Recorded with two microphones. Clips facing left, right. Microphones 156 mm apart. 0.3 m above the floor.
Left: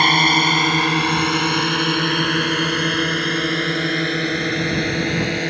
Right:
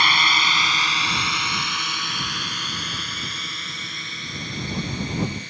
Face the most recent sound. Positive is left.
turn(degrees=75)  # may be behind; listen again after turning